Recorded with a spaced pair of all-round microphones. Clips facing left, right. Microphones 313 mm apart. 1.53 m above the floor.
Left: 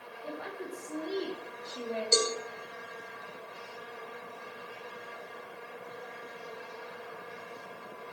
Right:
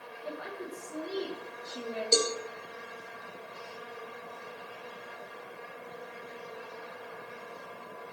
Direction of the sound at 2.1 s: 45° right (ahead or behind).